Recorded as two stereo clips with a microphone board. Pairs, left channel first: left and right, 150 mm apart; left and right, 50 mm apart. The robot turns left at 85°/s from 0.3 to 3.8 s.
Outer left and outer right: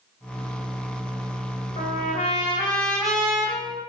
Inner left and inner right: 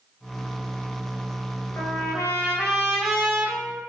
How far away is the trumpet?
About 1.8 m.